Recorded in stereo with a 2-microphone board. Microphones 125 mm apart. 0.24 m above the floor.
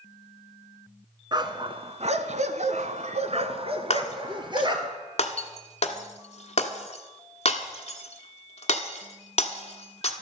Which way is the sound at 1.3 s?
35° right (ahead or behind).